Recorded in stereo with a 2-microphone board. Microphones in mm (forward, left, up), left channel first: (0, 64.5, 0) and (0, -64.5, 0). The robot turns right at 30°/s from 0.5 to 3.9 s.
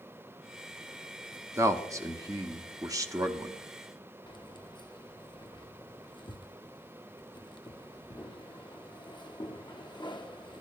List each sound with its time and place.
1.6 s a man speaking: 20° right (ahead or behind), 0.8 m; by 3.6 s 25° right (ahead or behind), 0.8 m
4.3 s keys jangling: 35° left (ahead or behind), 0.8 m